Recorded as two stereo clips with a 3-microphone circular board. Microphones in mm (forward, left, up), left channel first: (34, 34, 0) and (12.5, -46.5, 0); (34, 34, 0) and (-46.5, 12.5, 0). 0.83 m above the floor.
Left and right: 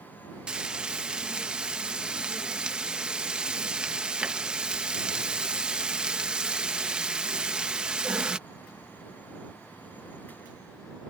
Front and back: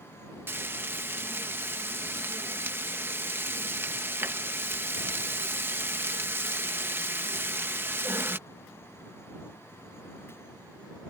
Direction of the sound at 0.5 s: 170° right.